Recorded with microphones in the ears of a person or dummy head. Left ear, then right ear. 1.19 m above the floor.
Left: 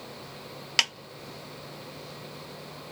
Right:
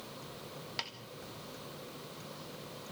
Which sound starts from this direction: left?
A snare drum, at 0.8 s.